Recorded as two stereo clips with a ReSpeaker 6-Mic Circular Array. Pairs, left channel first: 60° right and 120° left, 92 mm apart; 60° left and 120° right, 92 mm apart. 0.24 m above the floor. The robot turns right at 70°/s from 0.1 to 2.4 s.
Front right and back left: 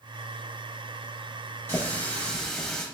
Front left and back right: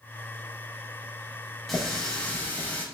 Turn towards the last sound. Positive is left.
turn(degrees=15)